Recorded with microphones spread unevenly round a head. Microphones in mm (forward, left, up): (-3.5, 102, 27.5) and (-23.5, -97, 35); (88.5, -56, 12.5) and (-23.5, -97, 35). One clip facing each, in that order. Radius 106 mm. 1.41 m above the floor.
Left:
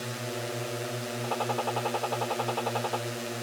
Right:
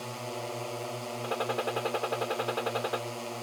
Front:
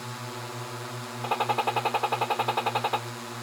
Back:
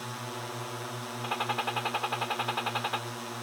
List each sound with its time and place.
0.0 s a drone: 95° left
1.2 s a gunshot: 25° right